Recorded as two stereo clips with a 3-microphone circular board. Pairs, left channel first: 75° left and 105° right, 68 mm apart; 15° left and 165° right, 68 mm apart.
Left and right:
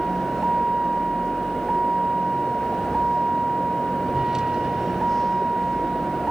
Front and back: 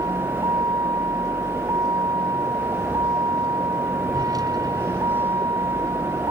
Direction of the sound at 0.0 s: 175° left.